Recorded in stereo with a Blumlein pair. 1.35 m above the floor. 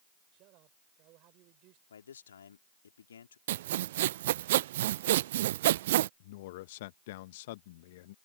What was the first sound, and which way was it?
A man speaking, 40° right.